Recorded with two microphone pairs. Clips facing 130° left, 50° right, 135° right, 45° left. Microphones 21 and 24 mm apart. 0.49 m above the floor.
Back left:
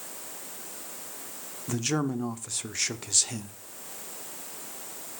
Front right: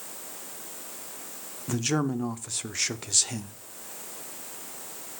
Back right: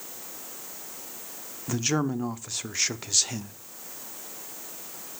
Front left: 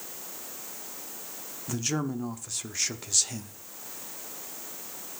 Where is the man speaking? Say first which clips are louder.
Front right 1 dB, back right 4 dB; 135° right, 0.7 m.